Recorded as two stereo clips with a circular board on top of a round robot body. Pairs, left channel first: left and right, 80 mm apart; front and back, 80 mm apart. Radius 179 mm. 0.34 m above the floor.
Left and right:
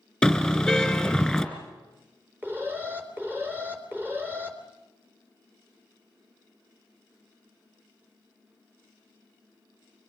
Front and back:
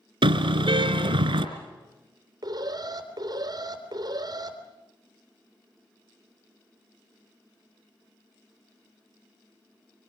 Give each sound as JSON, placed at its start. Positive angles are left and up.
{"t": 0.2, "sound": "a car horn", "azimuth_deg": 175, "distance_m": 2.0}
{"t": 2.4, "sound": "an alarm", "azimuth_deg": -155, "distance_m": 4.0}